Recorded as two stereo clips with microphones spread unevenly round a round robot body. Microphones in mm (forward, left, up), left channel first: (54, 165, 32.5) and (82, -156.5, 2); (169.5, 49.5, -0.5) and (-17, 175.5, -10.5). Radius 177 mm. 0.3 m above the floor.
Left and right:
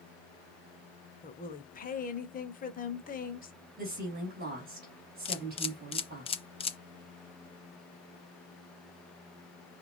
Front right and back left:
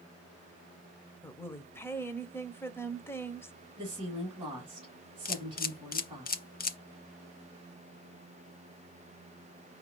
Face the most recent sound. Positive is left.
turn(degrees=20)